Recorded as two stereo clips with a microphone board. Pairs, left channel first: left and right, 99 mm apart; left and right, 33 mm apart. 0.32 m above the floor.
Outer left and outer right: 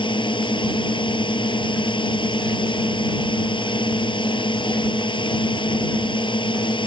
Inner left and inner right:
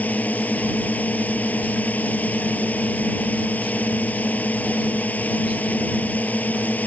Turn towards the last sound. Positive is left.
turn(degrees=50)  # may be behind; listen again after turning